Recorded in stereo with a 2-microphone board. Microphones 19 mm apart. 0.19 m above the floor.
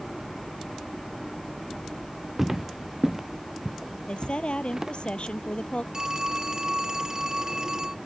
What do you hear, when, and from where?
2.4 s footsteps: 5° right (ahead or behind); by 4.9 s 15° right (ahead or behind)
4.1 s a woman speaking: 50° left (ahead or behind)
5.9 s a phone ringing: 35° right (ahead or behind)